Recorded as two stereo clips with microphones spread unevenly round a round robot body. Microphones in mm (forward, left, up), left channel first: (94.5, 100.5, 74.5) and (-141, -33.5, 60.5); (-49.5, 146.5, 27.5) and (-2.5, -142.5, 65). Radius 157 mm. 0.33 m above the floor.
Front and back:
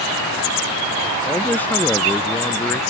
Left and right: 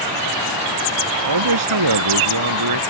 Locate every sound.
1.2 s a man speaking: 55° right